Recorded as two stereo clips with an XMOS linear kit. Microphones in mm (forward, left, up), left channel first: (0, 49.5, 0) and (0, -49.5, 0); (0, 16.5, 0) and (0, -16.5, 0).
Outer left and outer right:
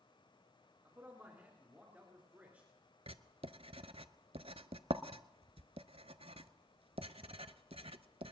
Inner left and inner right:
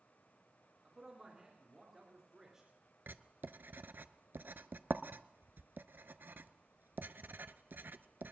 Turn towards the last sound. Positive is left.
turn(degrees=-80)